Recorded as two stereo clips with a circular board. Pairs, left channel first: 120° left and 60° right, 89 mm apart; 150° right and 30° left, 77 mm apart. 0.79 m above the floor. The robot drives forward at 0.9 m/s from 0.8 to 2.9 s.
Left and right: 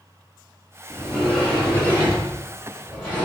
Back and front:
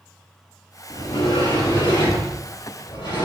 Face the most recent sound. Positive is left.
turn(degrees=-170)